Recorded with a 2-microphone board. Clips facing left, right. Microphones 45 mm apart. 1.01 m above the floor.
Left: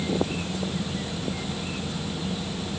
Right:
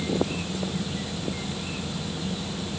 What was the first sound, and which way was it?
Only background noise.